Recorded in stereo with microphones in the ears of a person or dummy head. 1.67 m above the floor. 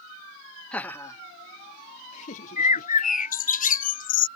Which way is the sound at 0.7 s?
5° left (ahead or behind).